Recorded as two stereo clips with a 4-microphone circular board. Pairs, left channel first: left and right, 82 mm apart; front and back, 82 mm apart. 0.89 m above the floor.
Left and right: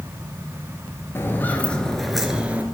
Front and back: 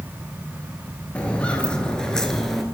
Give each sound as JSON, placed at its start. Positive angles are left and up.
{"t": 1.1, "sound": "footsteps", "azimuth_deg": 65, "distance_m": 0.9}